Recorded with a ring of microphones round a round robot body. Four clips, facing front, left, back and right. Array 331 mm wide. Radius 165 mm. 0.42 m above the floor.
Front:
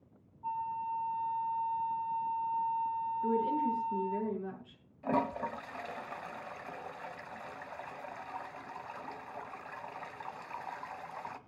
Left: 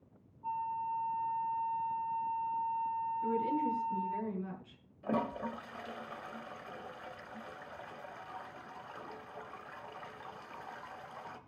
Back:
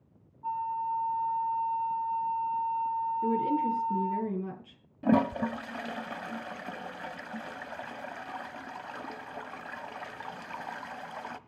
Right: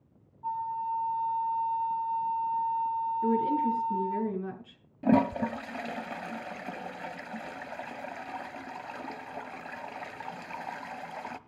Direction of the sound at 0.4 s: 110° right.